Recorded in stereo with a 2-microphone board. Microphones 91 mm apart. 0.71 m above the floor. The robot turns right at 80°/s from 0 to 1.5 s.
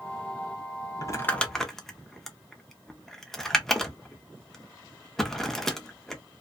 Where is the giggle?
No giggle in this recording.